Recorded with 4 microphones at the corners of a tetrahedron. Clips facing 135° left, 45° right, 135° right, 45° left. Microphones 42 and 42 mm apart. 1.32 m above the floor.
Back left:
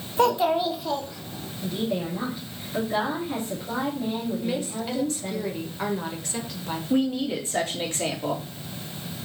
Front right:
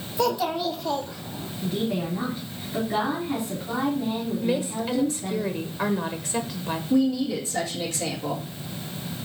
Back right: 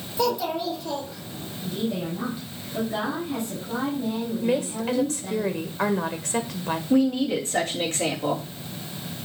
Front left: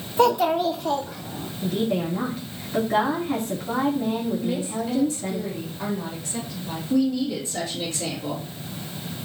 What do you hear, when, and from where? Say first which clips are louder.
0.2 s a child speaking: back left 3 dB, front left 6 dB; 90° left, 1.4 m; by 1.5 s 30° left, 2 m
1.6 s a woman speaking: front right 1 dB, front left 4 dB; 40° left, 3.5 m
4.4 s a woman speaking: front right 3 dB, back right 2 dB; 125° right, 1.4 m
6.9 s a woman speaking: front right 2 dB, back right 1 dB; 170° right, 2.5 m